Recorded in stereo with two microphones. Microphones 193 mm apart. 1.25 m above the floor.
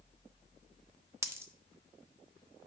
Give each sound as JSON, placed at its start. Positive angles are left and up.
{"t": 1.2, "sound": "a dropped coin", "side_deg": -15, "distance_m": 0.6}